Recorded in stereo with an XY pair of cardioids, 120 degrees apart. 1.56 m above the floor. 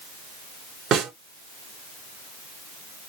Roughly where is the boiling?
No boiling in this recording.